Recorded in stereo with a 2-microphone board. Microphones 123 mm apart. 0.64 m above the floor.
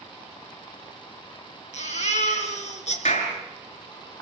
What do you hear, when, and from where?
1.7 s a baby crying: 65° left (ahead or behind), 3.5 m
3.0 s a clap: 85° left, 6.5 m